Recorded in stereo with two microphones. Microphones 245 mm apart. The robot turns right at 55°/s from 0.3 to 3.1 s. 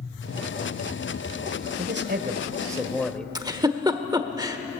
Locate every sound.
1.8 s a man speaking: 70° right, 1.6 m; by 3.2 s 5° left, 1.6 m
3.4 s a giggle: 15° right (ahead or behind), 1.1 m